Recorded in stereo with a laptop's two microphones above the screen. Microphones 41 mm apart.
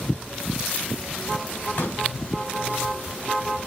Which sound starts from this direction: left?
A pop, at 1.8 s.